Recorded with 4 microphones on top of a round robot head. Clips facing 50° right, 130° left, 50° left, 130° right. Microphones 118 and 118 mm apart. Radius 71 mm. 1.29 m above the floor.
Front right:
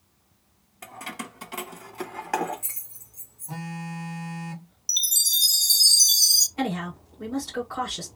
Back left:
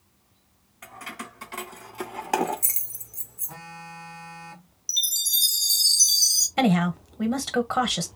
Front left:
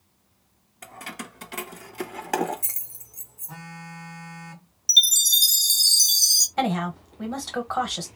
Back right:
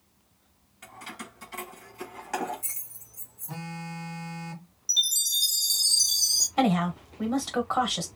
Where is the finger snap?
No finger snap in this recording.